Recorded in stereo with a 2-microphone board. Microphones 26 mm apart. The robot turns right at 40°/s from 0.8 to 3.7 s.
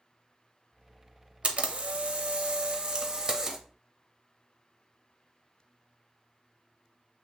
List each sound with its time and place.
1.4 s a camera shutter: 105° right, 0.5 m; by 3.6 s 20° right, 0.5 m